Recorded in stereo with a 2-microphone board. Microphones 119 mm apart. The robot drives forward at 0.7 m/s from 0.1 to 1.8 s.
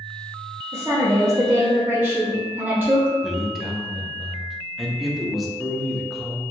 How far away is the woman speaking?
About 0.6 m.